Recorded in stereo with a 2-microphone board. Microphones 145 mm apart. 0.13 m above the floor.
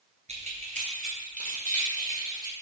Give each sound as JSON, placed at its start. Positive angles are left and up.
{"t": 0.3, "sound": "keys jangling", "side_deg": -50, "distance_m": 1.5}